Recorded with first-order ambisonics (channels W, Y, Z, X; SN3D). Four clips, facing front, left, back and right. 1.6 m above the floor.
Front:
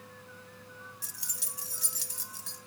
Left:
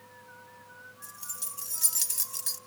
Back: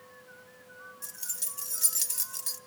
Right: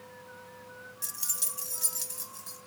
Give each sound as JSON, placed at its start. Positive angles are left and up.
{"t": 1.0, "sound": "keys jangling", "azimuth_deg": -70, "distance_m": 0.7}